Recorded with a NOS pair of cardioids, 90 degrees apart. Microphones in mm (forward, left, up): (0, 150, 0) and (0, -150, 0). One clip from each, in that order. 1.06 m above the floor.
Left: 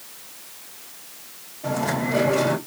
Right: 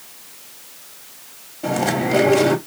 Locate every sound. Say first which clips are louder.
1.6 s chewing: right 4 dB; 60° right, 2.5 m